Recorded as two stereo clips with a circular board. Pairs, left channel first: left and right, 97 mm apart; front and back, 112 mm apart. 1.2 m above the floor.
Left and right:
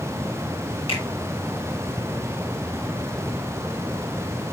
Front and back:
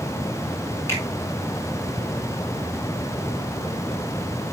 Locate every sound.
0.9 s a finger snap: 65° left, 5 m